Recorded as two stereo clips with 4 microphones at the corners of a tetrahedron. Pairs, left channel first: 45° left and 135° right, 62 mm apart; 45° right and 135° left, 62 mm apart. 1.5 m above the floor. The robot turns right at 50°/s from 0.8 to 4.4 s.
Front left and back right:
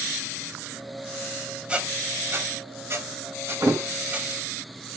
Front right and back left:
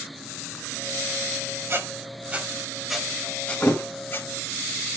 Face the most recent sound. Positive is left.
turn(degrees=-65)